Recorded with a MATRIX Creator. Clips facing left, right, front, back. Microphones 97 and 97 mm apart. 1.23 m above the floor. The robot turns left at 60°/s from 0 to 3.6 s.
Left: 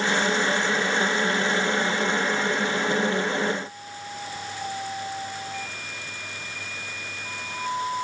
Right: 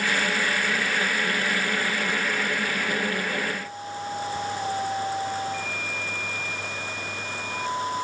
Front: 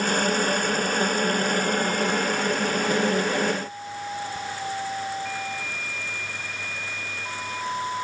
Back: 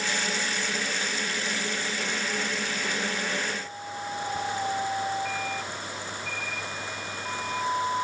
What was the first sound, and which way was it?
Only background noise.